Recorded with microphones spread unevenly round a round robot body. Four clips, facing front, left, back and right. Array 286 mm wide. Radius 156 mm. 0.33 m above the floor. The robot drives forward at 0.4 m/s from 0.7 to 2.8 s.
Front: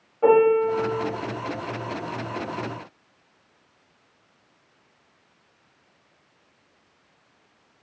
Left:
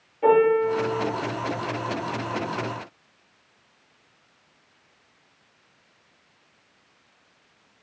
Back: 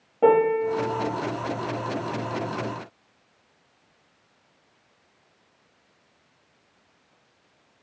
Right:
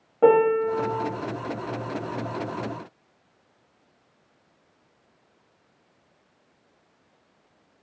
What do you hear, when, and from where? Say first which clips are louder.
0.2 s a piano: even, front 2 dB; 140° right, 0.6 m; by 1.1 s 145° right, 0.7 m